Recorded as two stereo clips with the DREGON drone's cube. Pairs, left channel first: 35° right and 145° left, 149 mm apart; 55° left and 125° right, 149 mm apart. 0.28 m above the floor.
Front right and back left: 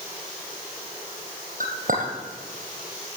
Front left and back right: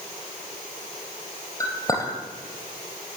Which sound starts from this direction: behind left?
A clink, at 1.6 s.